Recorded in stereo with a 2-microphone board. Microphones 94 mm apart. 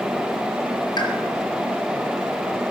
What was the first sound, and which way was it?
A pop, 50° left (ahead or behind).